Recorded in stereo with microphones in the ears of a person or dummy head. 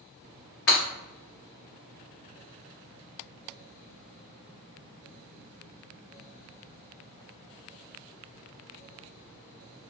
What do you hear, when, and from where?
0.7 s breaking glass: 50° left (ahead or behind), 1.7 m